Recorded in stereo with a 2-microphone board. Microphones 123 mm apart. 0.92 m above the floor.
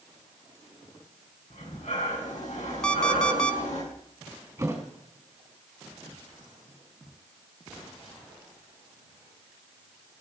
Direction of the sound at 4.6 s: 20° right (ahead or behind).